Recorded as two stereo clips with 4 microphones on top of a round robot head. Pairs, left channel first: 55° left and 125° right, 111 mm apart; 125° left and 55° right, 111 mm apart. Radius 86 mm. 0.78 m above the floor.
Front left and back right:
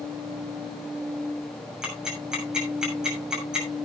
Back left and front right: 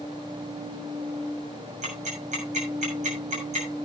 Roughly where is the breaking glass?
I don't hear breaking glass.